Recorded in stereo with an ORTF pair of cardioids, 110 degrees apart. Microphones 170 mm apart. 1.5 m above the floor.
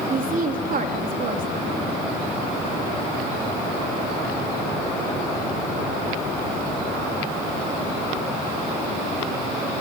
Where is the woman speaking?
55° right, 3.5 m.